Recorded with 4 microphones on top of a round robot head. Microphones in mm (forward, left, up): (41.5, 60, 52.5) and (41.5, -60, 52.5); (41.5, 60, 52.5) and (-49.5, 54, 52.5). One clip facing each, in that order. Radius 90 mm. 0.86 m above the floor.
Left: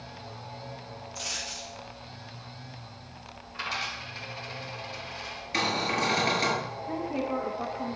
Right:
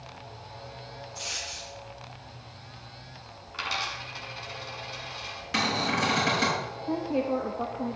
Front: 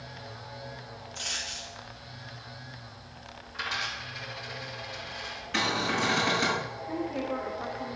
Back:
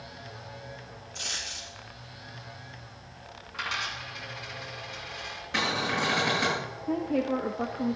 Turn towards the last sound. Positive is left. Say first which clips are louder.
# right 4 dB, back 6 dB
turn(degrees=-155)